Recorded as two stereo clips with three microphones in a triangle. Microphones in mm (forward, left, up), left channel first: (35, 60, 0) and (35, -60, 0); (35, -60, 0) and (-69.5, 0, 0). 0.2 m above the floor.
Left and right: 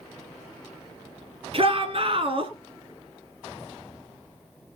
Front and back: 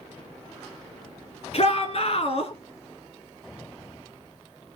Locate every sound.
1.5 s a shout: 55° right, 3.5 m